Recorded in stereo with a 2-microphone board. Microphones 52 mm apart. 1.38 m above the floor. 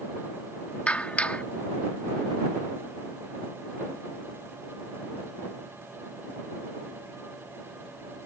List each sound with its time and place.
0.9 s a clap: 25° left (ahead or behind)